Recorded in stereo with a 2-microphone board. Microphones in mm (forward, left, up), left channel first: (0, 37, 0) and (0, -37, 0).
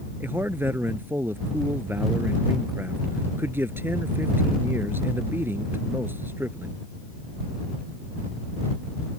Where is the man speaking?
30° right (ahead or behind).